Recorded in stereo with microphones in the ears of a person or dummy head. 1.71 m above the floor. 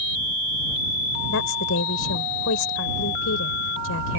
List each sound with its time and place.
1.3 s a woman speaking: 70° left (ahead or behind)